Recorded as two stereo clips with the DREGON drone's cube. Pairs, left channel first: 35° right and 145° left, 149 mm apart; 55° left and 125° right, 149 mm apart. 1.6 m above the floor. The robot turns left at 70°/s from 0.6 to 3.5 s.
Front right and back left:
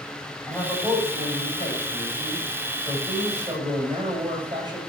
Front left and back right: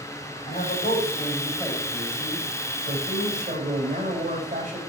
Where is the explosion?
I don't hear an explosion.